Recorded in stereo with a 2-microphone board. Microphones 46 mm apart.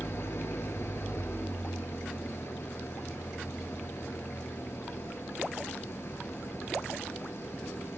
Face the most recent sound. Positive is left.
turn(degrees=65)  # may be behind; listen again after turning